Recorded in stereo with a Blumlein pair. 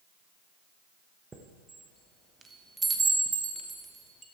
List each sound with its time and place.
1.3 s a chime: 15° right, 1.1 m